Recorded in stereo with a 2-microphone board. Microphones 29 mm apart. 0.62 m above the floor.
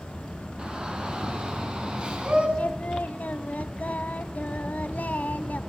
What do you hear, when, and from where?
0.6 s a shout: 30° right (ahead or behind), 6.5 m; by 2.5 s 35° right (ahead or behind), 5 m
2.6 s singing: 75° left (ahead or behind), 1.1 m